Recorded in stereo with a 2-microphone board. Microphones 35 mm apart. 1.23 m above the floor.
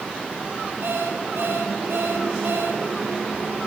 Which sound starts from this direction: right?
An alarm clock, at 0.8 s.